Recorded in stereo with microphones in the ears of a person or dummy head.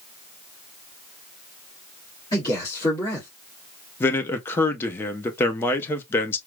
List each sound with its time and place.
2.3 s a man speaking: 25° left (ahead or behind), 2.5 m
4.0 s a man speaking: 20° left (ahead or behind), 0.6 m